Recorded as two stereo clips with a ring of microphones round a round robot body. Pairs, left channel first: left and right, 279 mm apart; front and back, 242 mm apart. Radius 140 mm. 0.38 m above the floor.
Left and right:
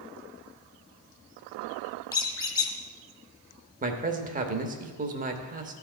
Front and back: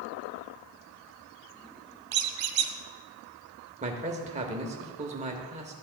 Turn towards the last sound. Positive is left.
turn(degrees=-135)